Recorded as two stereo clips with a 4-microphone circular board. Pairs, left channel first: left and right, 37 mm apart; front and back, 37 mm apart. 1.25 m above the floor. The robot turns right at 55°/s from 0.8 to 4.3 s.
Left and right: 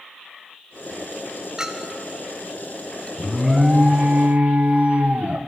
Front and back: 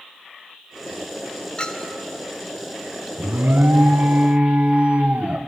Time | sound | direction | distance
1.6 | a clink | 35° right | 0.7 m
3.2 | an alarm | 165° left | 0.7 m